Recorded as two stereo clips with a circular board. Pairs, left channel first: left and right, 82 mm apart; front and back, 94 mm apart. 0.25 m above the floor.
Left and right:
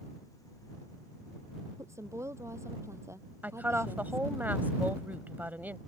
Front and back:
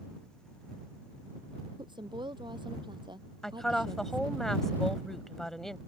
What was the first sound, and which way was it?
A woman speaking, 145° right.